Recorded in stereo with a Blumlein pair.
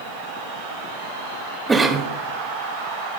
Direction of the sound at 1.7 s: 15° right.